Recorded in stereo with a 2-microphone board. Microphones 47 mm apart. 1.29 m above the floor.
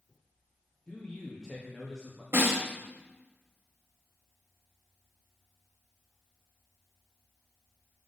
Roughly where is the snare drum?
Right.